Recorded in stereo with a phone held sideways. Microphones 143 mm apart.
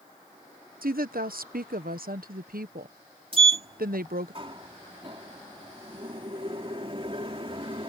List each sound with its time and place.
0.8 s a woman speaking: 80° right
3.3 s a sliding door: 40° right (ahead or behind)